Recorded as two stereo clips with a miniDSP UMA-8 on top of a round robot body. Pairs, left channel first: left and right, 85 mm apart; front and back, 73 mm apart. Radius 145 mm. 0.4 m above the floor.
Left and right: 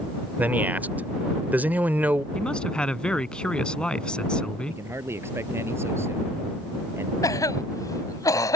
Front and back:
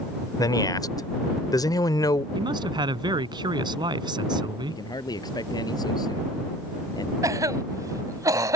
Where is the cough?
140° left.